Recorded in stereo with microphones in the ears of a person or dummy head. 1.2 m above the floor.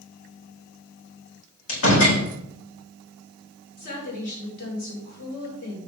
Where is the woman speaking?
45° left (ahead or behind), 4.5 m.